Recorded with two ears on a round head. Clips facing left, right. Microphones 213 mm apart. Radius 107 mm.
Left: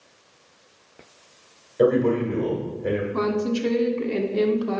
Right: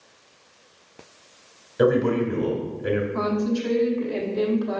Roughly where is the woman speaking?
Left.